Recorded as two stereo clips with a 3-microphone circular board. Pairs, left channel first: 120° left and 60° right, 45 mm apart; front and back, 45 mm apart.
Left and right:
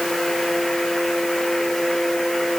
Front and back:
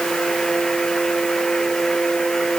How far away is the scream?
I don't hear a scream.